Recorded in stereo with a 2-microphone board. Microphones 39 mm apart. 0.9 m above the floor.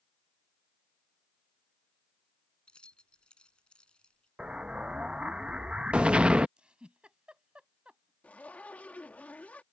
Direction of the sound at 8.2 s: 40° left (ahead or behind).